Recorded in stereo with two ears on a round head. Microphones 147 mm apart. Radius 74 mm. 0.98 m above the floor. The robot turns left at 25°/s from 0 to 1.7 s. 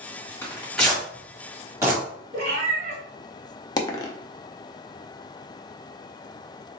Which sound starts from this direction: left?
A dropped coin, at 3.8 s.